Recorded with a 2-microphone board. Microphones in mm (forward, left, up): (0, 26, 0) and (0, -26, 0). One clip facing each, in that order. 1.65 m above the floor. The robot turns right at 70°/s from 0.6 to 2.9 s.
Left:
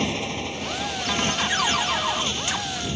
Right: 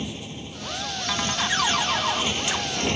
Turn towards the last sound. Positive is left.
turn(degrees=-115)